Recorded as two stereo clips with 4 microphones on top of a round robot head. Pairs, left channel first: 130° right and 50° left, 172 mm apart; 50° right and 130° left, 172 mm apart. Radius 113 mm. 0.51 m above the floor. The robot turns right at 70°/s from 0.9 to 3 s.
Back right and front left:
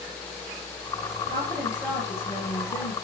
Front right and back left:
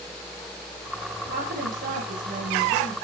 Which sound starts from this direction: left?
A woman speaking, at 1.2 s.